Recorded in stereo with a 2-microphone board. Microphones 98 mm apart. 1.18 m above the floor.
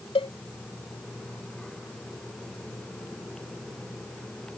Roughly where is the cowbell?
Left.